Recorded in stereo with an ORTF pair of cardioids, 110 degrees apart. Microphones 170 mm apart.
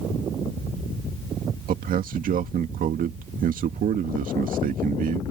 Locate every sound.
1.7 s a man speaking: 55° right